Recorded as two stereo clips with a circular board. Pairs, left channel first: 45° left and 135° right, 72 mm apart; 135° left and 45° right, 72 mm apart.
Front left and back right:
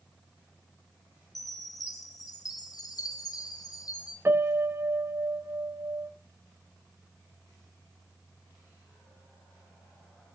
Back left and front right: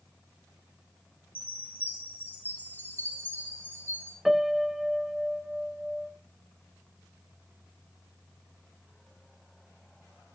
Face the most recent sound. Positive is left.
turn(degrees=-130)